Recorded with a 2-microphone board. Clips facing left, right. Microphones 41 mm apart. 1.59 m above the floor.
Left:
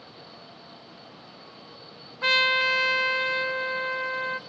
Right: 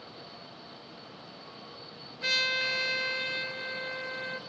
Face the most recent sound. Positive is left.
turn(degrees=45)  # may be behind; listen again after turning